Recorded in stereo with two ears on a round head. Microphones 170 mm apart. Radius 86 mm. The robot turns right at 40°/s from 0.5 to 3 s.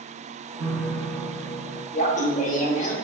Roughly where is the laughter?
Ahead left.